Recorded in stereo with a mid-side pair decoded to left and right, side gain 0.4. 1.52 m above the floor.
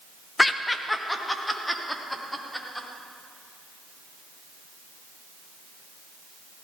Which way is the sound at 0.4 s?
20° left.